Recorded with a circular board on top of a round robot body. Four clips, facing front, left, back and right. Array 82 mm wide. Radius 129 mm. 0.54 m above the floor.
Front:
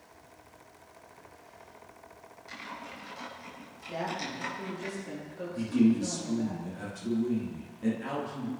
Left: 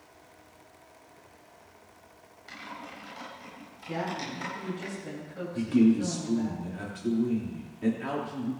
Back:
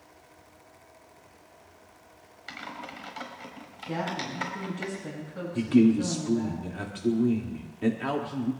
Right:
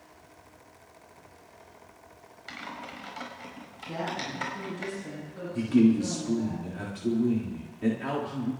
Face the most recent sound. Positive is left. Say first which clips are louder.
# right 1 dB, back 4 dB
turn(degrees=-175)